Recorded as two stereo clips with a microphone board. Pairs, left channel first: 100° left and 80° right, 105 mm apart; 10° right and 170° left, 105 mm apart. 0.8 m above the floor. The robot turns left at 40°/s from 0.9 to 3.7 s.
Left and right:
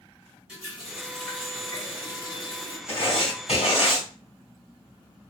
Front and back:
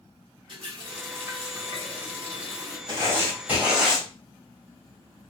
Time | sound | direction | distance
0.5 | a running tap | 160° right | 2 m
2.9 | writing | 120° left | 2.5 m